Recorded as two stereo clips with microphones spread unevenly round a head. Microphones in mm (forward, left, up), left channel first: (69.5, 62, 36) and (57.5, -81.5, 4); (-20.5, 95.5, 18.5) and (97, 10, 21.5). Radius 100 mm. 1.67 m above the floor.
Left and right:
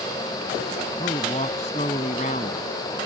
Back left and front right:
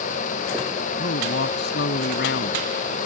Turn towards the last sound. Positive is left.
turn(degrees=145)